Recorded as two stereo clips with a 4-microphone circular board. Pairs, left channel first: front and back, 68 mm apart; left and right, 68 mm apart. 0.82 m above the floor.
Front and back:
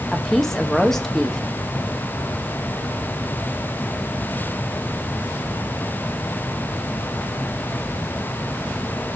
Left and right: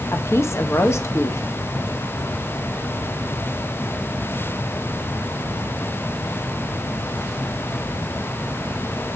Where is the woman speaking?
80° left, 0.9 m.